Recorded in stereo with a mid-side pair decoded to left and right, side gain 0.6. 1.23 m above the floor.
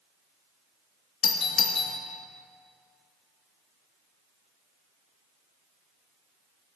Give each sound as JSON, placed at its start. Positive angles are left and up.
{"t": 1.2, "sound": "a doorbell", "azimuth_deg": 45, "distance_m": 2.5}